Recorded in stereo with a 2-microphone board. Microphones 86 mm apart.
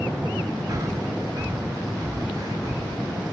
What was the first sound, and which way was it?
Breathing, 45° right (ahead or behind).